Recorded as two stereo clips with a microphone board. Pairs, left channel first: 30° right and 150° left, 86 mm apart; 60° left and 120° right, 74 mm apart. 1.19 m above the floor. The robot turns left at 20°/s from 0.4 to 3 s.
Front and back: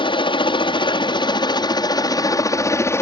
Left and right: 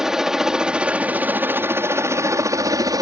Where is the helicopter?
35° right; by 3.0 s 90° right.